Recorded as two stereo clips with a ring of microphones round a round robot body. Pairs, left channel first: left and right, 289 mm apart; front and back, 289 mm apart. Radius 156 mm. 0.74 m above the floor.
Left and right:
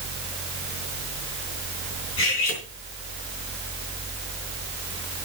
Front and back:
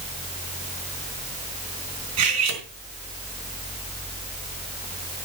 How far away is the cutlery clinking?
About 4 m.